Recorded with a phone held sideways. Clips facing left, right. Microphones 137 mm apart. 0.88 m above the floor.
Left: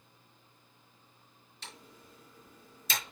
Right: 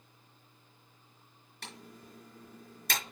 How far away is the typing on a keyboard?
About 5 m.